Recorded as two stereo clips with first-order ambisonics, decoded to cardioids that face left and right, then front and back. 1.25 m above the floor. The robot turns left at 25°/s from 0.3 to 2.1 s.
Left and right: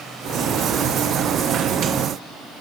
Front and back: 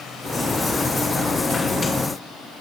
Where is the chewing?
I don't hear chewing.